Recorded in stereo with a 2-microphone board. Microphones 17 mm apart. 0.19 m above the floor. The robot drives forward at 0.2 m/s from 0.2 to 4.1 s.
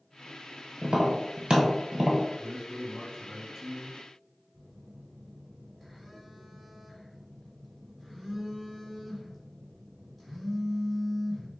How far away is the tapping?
About 0.8 m.